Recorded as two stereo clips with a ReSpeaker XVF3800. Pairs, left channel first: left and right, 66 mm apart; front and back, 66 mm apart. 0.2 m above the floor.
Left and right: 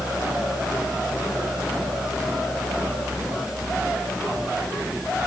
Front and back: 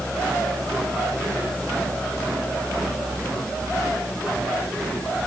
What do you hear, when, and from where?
Only background noise.